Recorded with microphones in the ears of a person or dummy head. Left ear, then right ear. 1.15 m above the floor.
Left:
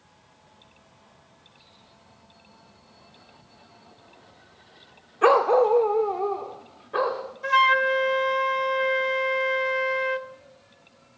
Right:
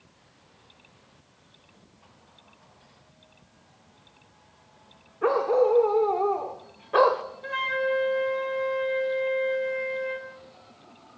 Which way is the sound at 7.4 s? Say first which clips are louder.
Left 8 dB; 35° left (ahead or behind).